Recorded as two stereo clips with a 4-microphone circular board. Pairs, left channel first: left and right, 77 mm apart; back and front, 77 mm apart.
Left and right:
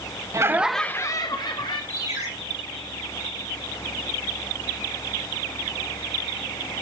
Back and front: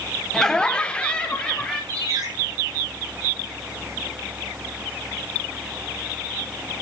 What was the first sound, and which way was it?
Laughter, 100° right.